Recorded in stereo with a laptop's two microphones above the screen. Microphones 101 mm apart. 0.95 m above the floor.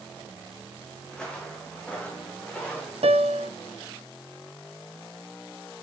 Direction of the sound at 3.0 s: 75° right (ahead or behind).